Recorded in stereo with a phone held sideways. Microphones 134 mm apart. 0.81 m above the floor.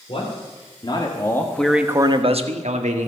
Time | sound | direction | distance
0.1 | a man speaking | 50° left (ahead or behind) | 3 m